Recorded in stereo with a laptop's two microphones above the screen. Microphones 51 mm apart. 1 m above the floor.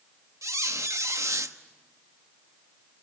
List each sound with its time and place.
0.4 s a squeak: 80° right, 1.1 m